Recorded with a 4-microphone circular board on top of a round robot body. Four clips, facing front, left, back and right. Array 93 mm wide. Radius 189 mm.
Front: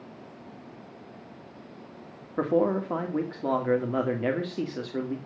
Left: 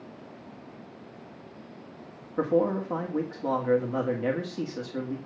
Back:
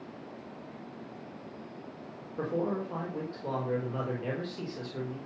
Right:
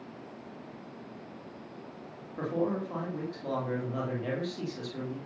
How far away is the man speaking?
About 2.5 m.